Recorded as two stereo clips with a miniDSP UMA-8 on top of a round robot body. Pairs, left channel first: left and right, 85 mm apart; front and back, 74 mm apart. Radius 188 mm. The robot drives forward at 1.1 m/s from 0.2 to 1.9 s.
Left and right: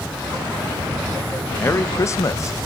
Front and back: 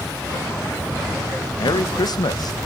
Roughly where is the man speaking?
Ahead left.